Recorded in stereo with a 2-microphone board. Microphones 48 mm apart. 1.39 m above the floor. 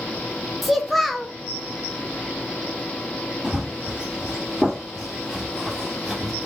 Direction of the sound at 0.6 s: Centre (ahead or behind).